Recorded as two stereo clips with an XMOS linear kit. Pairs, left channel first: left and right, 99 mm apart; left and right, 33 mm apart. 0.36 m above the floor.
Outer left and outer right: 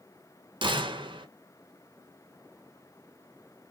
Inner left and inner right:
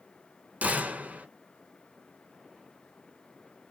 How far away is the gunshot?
About 0.9 m.